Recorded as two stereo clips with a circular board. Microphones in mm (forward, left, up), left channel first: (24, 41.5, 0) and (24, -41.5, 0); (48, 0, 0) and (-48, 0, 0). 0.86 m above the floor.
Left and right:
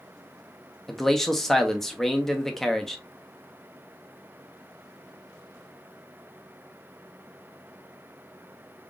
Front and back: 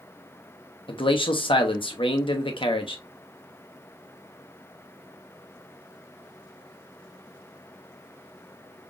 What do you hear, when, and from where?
0.9 s a man speaking: 5° left, 0.8 m